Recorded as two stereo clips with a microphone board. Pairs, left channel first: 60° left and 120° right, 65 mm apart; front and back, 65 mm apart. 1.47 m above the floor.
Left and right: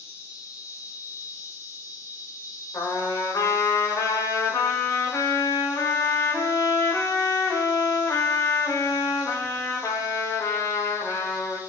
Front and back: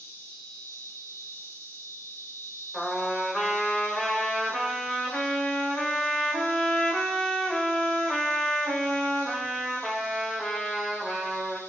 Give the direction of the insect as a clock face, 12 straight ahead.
11 o'clock.